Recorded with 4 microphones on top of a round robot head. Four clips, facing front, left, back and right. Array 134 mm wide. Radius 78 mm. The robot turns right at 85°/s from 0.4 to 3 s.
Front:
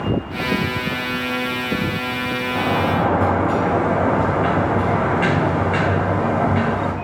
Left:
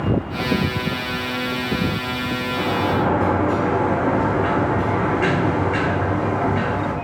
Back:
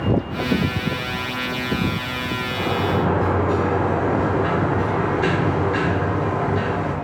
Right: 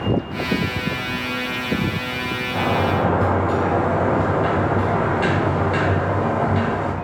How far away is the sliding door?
About 3 m.